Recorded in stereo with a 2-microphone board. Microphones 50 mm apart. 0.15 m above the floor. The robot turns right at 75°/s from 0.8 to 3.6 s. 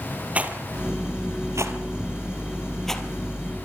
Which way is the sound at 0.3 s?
30° right (ahead or behind).